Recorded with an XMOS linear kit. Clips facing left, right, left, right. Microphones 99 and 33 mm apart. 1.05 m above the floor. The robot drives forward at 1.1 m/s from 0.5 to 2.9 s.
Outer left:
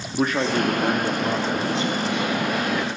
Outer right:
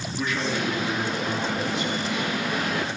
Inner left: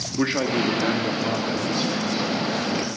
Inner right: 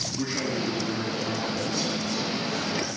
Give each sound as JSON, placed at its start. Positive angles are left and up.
{"t": 0.2, "sound": "a man speaking", "side_deg": 50, "distance_m": 1.9}